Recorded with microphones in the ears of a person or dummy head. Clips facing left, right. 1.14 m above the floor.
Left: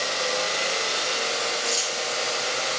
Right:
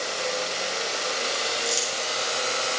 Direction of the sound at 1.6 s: 25° right (ahead or behind).